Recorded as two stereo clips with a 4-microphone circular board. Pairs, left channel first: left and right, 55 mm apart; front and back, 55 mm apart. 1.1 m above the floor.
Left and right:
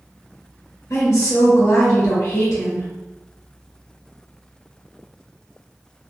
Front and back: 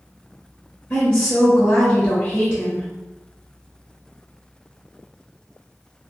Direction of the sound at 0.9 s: 45° left.